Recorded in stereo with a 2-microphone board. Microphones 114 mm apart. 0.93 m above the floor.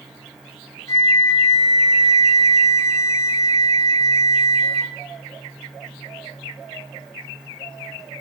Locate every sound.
0.9 s a flute: 25° left (ahead or behind), 0.5 m